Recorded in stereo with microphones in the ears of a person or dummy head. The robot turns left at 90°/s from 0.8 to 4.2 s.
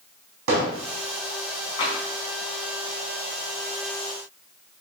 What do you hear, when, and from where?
0.5 s hammering: 75° right (ahead or behind), 3.5 m
1.8 s tapping: 25° left (ahead or behind), 3.5 m; by 2.0 s 40° left (ahead or behind), 3.5 m